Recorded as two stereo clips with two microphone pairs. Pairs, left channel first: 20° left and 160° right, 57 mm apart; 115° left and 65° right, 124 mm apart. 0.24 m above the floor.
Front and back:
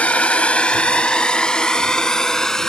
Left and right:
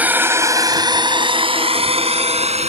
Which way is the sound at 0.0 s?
5° right.